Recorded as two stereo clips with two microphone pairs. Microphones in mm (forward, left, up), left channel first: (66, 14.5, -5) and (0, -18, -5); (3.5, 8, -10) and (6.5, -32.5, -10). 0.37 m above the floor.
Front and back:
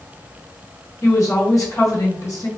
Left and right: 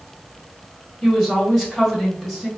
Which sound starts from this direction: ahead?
A woman speaking, at 1.0 s.